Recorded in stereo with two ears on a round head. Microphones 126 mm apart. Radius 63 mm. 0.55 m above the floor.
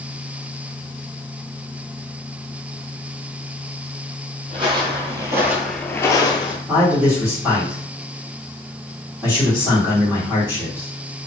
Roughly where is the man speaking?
Right.